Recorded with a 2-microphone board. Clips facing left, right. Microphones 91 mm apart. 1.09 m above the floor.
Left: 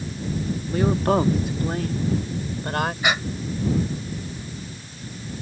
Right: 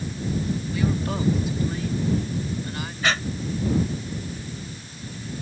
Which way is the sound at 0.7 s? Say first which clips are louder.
Left 8 dB; 45° left (ahead or behind).